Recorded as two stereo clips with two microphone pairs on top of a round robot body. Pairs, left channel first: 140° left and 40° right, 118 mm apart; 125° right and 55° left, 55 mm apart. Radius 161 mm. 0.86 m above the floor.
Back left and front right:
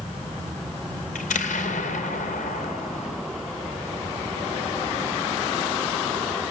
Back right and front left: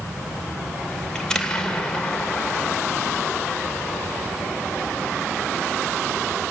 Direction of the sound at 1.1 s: 155° left.